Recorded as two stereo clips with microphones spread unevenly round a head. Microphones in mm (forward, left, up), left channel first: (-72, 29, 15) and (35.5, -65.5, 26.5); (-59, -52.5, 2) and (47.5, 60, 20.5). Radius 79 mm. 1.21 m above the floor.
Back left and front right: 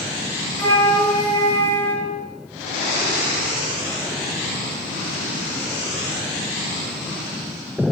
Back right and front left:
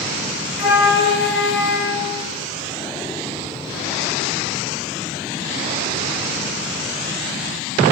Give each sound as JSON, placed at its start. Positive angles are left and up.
{"t": 0.6, "sound": "a flute", "azimuth_deg": -145, "distance_m": 4.5}